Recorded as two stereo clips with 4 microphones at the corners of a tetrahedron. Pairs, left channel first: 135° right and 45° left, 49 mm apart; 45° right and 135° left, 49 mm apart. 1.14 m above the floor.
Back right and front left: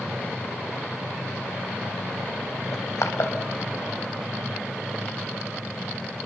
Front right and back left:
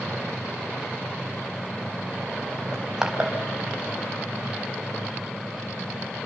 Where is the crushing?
145° right, 4.5 m.